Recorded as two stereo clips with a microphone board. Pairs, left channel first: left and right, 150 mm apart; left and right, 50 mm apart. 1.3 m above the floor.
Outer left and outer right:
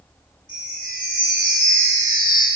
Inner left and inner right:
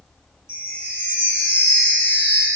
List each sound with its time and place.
0.5 s a chime: 65° left (ahead or behind), 2 m